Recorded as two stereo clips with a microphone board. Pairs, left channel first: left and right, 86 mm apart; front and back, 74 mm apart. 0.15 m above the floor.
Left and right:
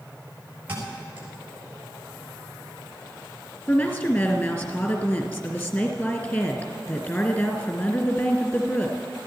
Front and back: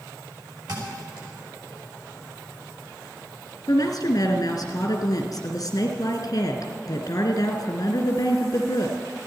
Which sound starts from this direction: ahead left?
A woman speaking, at 3.7 s.